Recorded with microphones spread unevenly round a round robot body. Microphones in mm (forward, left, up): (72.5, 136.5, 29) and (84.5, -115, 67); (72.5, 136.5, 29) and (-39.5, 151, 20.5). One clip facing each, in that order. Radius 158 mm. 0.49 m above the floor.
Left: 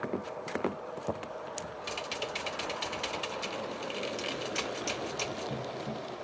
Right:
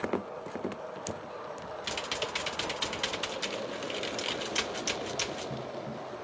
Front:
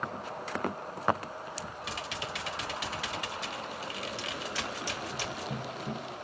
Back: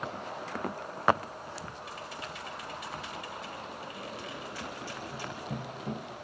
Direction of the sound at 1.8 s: 15° right.